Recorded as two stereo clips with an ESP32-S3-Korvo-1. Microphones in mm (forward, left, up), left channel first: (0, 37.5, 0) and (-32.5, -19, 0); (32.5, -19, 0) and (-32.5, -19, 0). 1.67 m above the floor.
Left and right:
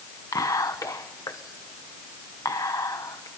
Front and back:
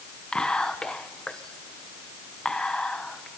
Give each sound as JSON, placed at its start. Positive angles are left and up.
{"t": 0.3, "sound": "whispering", "azimuth_deg": 75, "distance_m": 1.0}